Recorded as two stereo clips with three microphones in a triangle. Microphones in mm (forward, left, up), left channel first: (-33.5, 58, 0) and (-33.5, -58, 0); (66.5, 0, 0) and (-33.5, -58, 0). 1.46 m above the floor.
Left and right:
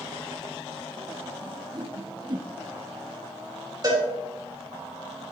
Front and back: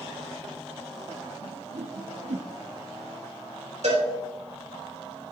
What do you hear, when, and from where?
1.4 s a whoosh: 140° right, 0.9 m
3.8 s a cowbell: 145° right, 3 m